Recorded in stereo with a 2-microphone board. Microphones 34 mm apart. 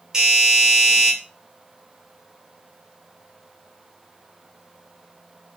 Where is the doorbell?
15° right (ahead or behind), 2.5 m.